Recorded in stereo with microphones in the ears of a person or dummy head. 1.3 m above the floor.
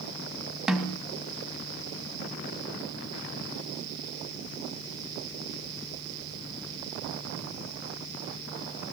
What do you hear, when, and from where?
0.7 s a snare drum: 5° right (ahead or behind), 2 m